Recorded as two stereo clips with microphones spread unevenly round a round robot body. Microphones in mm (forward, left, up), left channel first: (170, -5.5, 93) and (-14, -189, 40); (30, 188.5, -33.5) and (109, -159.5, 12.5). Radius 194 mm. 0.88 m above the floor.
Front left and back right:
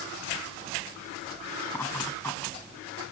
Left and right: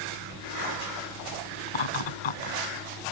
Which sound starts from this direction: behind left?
Laughter, at 1.7 s.